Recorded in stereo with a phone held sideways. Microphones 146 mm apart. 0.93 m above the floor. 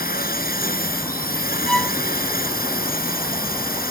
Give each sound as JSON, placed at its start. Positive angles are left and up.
{"t": 0.0, "sound": "a drone", "side_deg": 85}
{"t": 1.7, "sound": "a violin", "side_deg": 5}